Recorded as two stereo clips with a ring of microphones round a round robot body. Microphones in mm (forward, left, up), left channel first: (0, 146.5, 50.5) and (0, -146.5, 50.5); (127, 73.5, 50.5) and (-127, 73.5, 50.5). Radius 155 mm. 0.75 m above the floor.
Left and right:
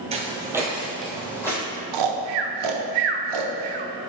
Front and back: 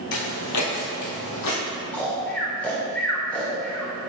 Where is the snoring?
85° right, 0.7 m.